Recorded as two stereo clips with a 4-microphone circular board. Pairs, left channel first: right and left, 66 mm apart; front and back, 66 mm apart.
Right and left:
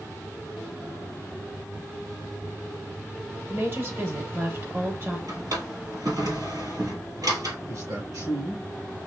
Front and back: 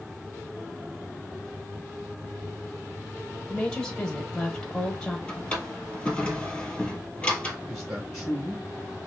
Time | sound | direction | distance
3.5 | a woman speaking | 70° left | 1.4 m
5.3 | a drawer | 75° left | 1.7 m
7.7 | a man speaking | 90° left | 3.5 m